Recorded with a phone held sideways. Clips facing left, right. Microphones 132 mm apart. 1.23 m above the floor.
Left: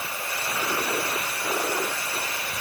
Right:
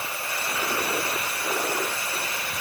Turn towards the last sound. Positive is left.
No sound to turn to.